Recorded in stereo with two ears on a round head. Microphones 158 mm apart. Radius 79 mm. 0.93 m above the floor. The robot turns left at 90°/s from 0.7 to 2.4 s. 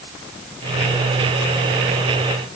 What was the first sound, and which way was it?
Only background noise.